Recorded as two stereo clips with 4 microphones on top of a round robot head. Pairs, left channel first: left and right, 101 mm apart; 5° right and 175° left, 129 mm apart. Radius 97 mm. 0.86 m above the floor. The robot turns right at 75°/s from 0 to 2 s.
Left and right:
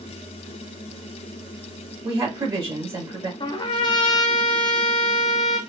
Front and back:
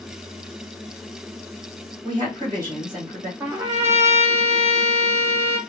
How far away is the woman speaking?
About 1.3 m.